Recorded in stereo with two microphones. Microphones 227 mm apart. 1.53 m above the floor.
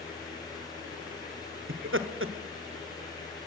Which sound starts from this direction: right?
Laughter, at 1.7 s.